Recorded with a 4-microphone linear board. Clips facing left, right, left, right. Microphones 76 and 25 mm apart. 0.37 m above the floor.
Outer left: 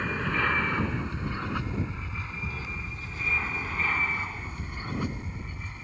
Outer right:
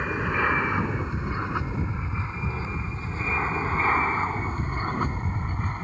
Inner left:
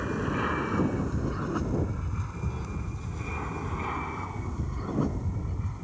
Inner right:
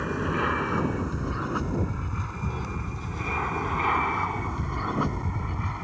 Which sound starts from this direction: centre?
An aircraft, at 0.0 s.